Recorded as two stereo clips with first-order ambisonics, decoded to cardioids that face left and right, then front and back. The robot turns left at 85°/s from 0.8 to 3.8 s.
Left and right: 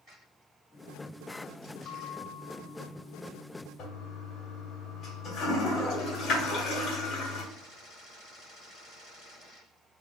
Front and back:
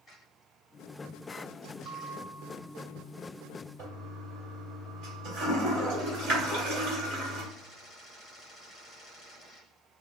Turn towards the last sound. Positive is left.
turn(degrees=140)